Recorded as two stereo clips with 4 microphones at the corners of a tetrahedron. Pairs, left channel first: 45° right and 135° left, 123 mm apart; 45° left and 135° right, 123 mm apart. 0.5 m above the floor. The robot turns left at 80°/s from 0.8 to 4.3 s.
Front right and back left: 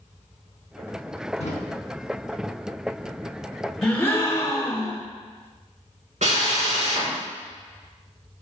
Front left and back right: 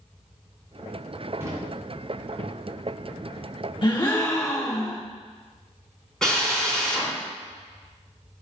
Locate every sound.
1.4 s a drawer: 65° right, 2.5 m; by 1.5 s 75° right, 2.5 m
3.8 s a gasp: 35° left, 1.3 m; by 5.0 s straight ahead, 1.3 m
6.2 s a drill: 130° left, 4 m